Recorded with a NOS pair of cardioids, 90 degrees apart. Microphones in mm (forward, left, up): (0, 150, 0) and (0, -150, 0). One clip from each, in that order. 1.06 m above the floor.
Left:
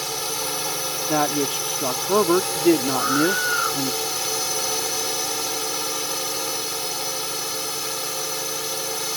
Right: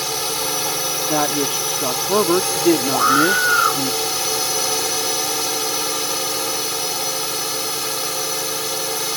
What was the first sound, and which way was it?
A drone, 30° right.